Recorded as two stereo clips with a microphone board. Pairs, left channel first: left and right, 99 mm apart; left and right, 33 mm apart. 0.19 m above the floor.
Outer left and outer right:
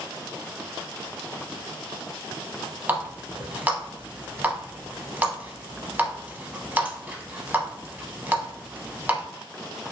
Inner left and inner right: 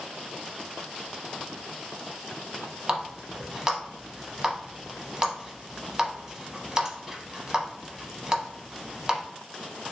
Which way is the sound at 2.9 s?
20° right (ahead or behind).